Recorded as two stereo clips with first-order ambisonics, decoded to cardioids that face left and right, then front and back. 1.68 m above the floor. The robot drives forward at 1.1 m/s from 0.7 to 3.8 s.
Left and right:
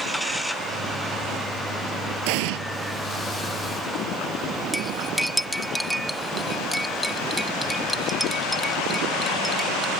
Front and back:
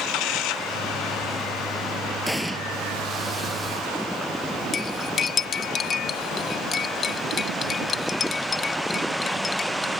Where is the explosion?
90° right.